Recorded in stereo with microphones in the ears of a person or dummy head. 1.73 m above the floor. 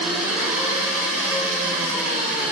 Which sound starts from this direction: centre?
An engine running, at 0.0 s.